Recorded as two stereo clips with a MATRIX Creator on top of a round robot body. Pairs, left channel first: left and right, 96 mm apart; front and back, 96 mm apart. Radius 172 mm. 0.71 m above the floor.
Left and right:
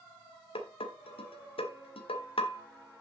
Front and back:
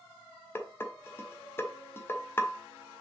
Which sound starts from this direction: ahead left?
Dishes clattering, at 0.6 s.